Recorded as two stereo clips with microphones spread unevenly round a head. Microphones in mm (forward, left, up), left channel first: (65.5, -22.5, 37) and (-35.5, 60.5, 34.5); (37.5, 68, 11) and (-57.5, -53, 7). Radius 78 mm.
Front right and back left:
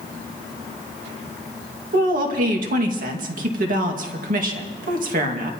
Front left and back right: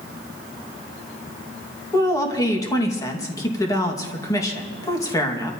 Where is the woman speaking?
120° left, 2 m.